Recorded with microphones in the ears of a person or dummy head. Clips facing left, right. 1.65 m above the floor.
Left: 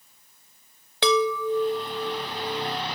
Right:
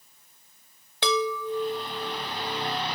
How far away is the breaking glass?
No breaking glass in this recording.